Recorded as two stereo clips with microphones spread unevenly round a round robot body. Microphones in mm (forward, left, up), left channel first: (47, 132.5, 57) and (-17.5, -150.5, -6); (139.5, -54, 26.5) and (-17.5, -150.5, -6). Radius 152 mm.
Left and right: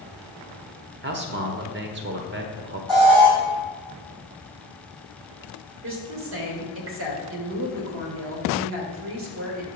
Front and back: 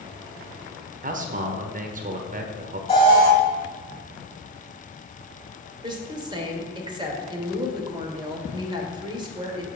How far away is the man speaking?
About 1.1 m.